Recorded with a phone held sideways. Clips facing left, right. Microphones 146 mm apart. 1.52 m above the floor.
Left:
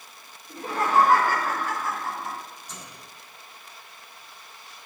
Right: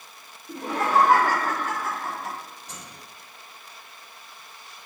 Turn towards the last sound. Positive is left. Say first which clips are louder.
# even
turn(degrees=-80)